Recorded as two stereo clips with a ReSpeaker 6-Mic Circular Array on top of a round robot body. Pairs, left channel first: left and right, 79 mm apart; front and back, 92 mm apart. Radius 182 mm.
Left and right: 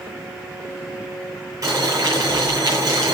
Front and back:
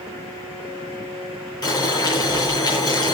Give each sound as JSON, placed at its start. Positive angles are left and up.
{"t": 1.6, "sound": "boiling", "azimuth_deg": -45, "distance_m": 10.0}